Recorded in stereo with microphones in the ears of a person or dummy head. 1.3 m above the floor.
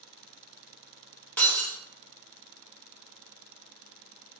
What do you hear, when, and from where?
1.4 s breaking glass: 10° left (ahead or behind), 1.1 m